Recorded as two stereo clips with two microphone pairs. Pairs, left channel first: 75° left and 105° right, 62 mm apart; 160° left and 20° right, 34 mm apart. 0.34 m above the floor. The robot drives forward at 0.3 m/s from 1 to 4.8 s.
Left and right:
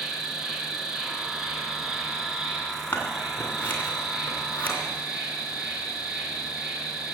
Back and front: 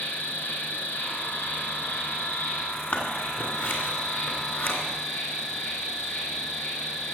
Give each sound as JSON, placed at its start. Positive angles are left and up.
{"t": 0.0, "sound": "an insect", "azimuth_deg": 170, "distance_m": 1.9}
{"t": 2.9, "sound": "scissors", "azimuth_deg": 130, "distance_m": 2.0}